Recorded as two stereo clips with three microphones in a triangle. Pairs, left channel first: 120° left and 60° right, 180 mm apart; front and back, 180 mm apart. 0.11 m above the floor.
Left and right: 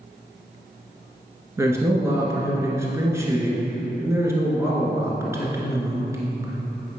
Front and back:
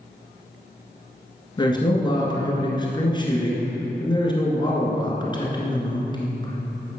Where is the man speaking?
10° right, 1.5 m.